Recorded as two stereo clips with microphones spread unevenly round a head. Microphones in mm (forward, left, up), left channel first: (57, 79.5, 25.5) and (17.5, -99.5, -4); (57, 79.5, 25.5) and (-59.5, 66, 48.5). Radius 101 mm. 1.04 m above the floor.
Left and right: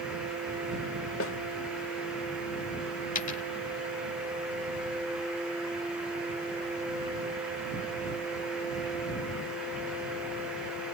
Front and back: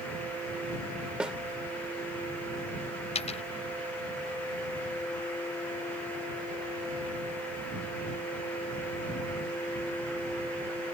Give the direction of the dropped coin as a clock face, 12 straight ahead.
11 o'clock.